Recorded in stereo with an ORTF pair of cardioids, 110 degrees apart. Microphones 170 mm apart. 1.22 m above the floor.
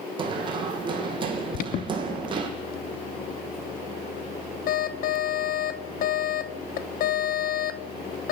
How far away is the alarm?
About 1.0 m.